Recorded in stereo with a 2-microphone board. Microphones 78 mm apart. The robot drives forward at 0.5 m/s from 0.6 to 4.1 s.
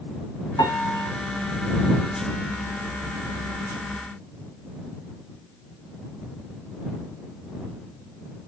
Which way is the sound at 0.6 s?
70° left (ahead or behind).